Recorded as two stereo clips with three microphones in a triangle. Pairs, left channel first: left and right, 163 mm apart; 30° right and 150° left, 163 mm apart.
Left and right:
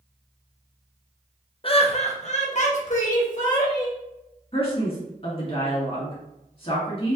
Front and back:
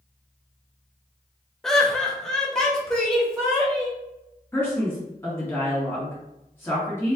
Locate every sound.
1.6 s laughter: 55° left, 0.6 m
4.5 s a man speaking: 45° left, 1.8 m